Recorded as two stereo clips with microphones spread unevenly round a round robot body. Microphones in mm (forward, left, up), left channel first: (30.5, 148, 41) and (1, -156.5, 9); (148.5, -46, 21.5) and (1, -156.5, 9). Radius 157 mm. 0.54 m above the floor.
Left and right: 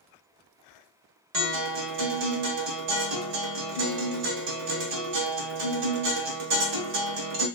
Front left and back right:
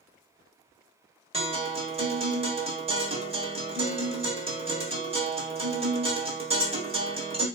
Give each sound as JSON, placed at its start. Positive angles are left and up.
{"t": 1.3, "sound": "a guitar", "azimuth_deg": -85, "distance_m": 1.4}